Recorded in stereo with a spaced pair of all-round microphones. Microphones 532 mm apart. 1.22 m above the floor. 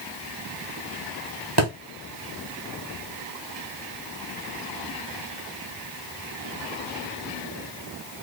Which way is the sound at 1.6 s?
45° right (ahead or behind).